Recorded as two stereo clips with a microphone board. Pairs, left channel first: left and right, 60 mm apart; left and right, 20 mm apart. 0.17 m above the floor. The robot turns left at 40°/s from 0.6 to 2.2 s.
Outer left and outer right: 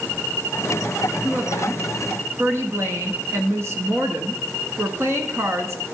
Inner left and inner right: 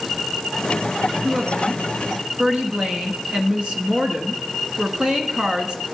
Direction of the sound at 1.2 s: 65° right.